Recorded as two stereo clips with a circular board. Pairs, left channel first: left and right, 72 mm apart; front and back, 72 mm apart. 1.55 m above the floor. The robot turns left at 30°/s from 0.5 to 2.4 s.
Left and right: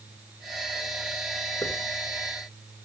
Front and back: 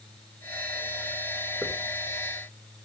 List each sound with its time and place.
1.6 s a hiss: 115° left, 2 m